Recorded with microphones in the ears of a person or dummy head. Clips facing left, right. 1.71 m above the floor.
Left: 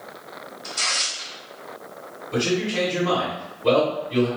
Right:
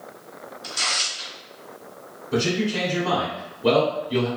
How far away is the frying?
No frying in this recording.